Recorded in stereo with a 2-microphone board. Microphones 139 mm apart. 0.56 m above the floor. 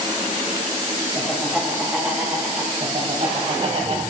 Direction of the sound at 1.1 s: 5° left (ahead or behind).